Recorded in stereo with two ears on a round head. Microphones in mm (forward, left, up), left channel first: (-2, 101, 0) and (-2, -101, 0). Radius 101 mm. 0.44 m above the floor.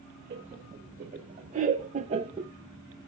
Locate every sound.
0.3 s laughter: 40° right (ahead or behind), 1.8 m; by 2.5 s 20° right (ahead or behind), 0.7 m